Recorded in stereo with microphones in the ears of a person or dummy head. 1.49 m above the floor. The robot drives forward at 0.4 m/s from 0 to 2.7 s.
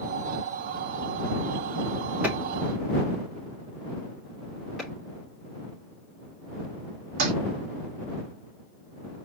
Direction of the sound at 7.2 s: 50° right (ahead or behind).